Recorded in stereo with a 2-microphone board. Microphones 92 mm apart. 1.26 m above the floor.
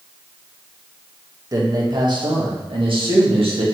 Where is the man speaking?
40° right (ahead or behind), 1.4 m; by 3.6 s 80° right, 2 m.